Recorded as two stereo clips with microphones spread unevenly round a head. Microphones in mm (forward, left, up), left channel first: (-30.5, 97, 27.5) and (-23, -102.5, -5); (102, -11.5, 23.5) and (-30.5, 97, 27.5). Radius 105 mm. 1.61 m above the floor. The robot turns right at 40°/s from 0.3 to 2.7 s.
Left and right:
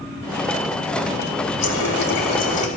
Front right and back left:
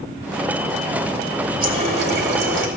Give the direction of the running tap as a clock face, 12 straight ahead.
9 o'clock.